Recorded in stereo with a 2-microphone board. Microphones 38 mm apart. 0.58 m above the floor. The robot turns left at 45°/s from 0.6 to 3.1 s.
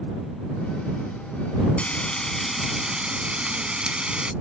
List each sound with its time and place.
1.8 s frying: 35° left; by 4.3 s 25° right